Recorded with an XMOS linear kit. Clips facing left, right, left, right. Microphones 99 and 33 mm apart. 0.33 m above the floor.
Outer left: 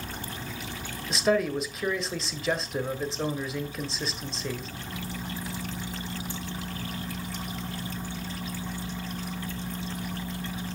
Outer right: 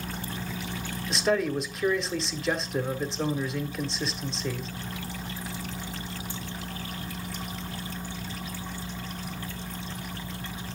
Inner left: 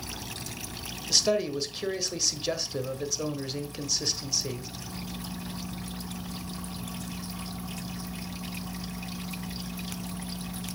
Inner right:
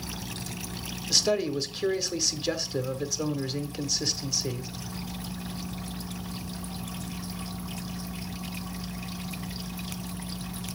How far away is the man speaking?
About 1.1 m.